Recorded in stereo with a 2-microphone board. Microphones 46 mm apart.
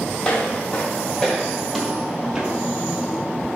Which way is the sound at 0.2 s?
15° left (ahead or behind).